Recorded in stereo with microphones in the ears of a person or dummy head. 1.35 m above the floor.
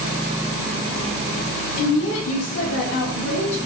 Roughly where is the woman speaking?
Left.